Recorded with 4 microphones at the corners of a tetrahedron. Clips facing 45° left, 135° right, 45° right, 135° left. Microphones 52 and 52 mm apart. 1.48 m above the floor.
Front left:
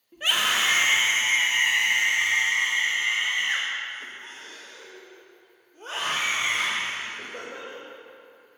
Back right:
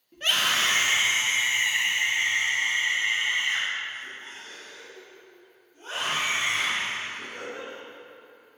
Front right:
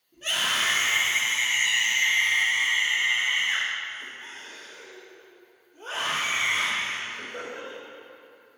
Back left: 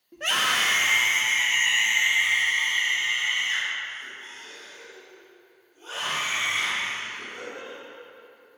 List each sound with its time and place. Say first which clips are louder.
0.1 s a scream: front left 1 dB, back left 3 dB; 125° left, 2 m; by 7.8 s 10° right, 6 m